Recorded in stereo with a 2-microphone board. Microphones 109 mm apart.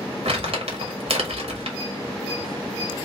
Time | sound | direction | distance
0.2 | crumpling | 60° right (ahead or behind) | 1.3 m